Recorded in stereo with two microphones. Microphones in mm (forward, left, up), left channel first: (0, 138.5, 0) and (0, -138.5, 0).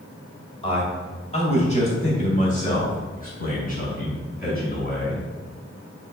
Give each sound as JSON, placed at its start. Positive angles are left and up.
{"t": 0.6, "sound": "a man speaking", "side_deg": 20, "distance_m": 2.5}